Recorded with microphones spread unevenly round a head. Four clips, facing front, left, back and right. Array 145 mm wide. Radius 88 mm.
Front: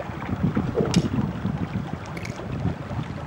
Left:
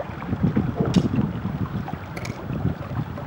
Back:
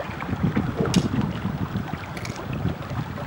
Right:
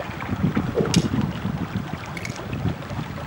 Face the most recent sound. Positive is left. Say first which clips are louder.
# left 1 dB, back 1 dB
turn(degrees=50)